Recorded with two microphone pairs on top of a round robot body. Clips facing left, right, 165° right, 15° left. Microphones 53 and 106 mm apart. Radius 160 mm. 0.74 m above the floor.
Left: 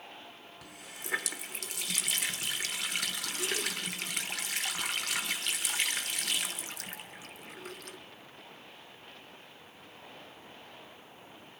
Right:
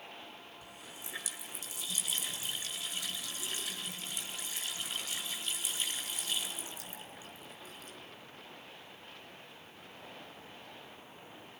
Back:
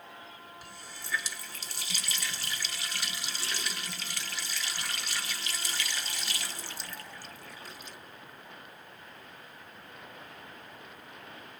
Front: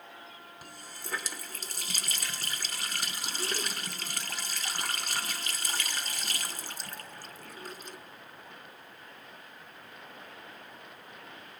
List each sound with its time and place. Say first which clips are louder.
0.6 s a running tap: left 3 dB, front 1 dB; 60° left, 1.7 m